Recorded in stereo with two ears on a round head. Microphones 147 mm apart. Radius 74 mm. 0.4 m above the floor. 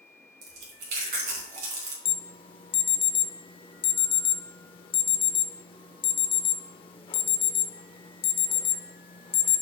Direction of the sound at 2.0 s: 30° left (ahead or behind).